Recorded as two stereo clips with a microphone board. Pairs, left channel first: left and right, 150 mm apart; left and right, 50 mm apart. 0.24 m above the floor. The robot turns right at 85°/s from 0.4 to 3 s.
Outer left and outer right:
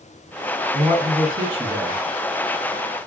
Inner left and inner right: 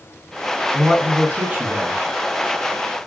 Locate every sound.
0.7 s a man speaking: 135° right, 1.1 m; by 2.0 s 30° right, 1.1 m